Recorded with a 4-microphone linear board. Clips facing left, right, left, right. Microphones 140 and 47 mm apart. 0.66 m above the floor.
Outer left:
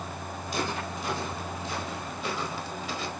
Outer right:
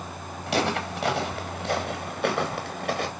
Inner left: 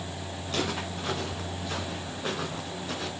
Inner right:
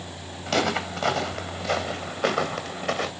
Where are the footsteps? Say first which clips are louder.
Outer right 7 dB, inner right 7 dB; 80° right, 5 m; by 3.1 s 65° right (ahead or behind), 3.5 m.